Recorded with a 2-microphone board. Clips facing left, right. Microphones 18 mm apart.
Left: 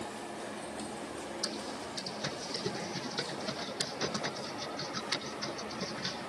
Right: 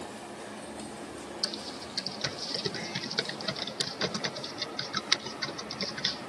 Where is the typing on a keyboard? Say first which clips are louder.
Right 5 dB; 65° right (ahead or behind), 1.1 m.